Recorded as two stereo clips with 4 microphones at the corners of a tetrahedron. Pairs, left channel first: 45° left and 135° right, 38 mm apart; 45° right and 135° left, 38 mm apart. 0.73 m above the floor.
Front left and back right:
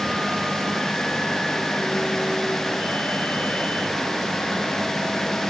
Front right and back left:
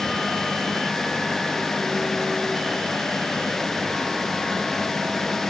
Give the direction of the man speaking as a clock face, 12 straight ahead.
No man speaking in this recording.